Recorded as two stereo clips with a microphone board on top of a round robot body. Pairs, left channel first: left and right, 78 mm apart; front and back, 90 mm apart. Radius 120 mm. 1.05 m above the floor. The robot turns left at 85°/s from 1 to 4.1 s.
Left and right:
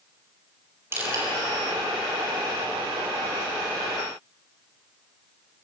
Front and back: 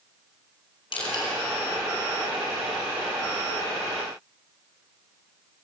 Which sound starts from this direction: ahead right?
Crushing, at 0.9 s.